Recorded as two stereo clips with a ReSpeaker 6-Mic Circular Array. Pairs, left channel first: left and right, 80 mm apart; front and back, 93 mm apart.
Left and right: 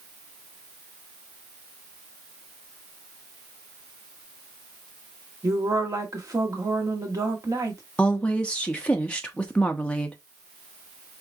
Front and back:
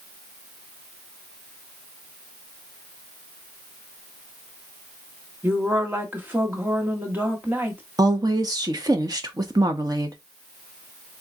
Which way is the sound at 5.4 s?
120° right.